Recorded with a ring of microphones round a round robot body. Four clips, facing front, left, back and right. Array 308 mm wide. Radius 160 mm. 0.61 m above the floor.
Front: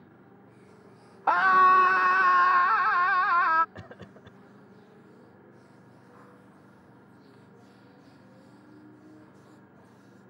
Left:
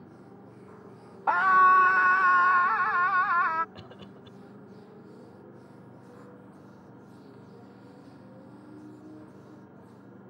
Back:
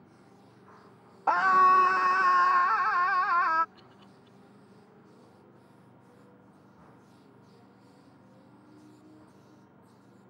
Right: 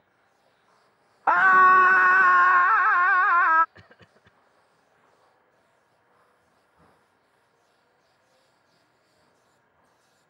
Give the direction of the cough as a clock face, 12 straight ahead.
11 o'clock.